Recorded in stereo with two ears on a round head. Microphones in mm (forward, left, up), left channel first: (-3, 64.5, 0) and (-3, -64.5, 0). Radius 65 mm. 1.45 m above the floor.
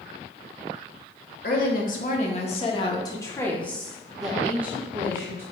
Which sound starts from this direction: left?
A woman speaking, at 1.4 s.